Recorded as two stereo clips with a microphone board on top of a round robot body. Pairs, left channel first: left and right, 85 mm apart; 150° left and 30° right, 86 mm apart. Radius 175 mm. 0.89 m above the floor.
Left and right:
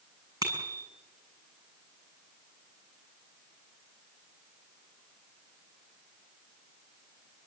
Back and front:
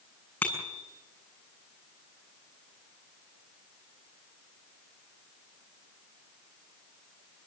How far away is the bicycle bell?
About 7.5 m.